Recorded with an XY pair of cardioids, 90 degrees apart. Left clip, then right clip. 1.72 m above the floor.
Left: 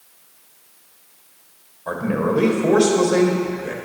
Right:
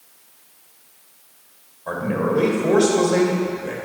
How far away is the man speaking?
About 1.5 m.